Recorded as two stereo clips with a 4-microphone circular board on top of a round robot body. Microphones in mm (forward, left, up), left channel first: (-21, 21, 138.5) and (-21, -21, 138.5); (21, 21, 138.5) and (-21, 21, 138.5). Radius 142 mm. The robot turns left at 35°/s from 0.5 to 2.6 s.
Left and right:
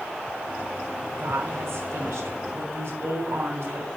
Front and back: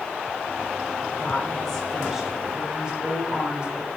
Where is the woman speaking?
60° right, 6 m; by 3.9 s 110° right, 6 m.